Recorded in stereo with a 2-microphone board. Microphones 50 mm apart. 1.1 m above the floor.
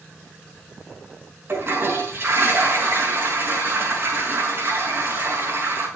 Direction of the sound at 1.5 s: 45° right (ahead or behind).